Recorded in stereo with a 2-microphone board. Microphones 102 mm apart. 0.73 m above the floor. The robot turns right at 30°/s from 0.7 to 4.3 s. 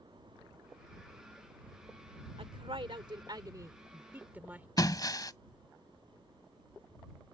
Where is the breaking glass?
40° left (ahead or behind).